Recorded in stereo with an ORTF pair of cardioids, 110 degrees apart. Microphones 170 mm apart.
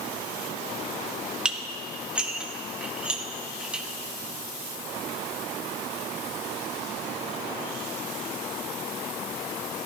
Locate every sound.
1.4 s dishes clattering: 5° right, 1.5 m